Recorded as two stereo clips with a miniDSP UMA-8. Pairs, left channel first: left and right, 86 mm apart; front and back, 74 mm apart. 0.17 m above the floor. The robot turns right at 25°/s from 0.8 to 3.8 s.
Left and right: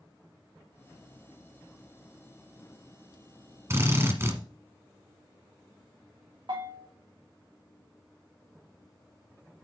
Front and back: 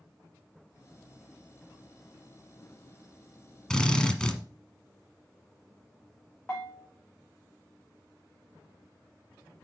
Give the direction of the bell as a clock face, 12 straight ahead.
2 o'clock.